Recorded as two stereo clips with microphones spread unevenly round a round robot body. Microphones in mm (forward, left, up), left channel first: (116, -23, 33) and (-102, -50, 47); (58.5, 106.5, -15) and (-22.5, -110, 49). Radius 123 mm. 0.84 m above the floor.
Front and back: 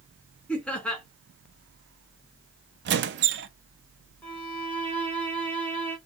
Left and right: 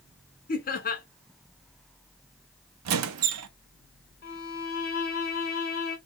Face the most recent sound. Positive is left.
turn(degrees=85)